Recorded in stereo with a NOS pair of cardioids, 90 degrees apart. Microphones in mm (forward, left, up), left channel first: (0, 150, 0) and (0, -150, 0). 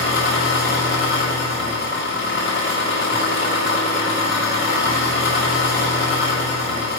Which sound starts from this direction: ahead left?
An engine running, at 0.0 s.